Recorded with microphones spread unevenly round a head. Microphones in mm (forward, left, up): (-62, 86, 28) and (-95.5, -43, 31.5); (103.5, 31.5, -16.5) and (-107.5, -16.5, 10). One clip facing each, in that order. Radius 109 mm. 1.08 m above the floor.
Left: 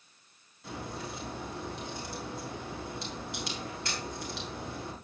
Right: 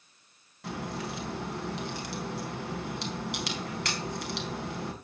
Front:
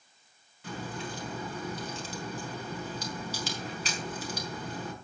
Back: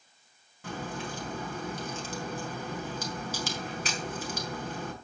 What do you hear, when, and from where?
0.6 s a crack: 125° right, 4 m